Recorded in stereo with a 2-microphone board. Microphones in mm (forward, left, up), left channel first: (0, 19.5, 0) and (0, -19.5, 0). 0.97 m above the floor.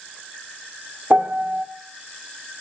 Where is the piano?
55° right (ahead or behind), 1.5 m.